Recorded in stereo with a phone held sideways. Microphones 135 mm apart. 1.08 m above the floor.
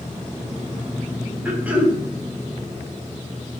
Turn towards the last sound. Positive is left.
turn(degrees=-10)  # may be behind; listen again after turning